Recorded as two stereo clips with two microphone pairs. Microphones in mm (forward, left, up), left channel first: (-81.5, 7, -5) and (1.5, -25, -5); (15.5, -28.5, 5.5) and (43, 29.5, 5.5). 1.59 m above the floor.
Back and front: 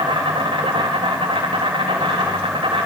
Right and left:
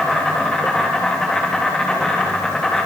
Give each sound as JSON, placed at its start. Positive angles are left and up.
{"t": 0.0, "sound": "an insect", "azimuth_deg": -35, "distance_m": 4.5}